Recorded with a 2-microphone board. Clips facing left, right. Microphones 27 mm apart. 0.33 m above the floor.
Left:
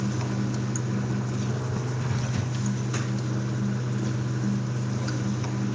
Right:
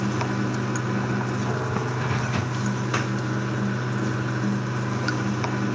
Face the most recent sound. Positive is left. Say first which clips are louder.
# right 4 dB
turn(degrees=-50)  # may be behind; listen again after turning